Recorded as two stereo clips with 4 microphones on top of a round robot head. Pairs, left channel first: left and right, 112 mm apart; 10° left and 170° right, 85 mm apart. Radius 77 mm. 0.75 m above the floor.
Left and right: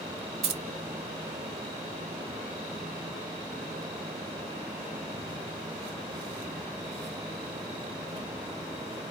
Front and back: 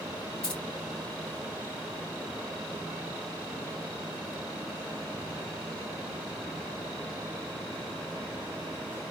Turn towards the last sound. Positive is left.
turn(degrees=-70)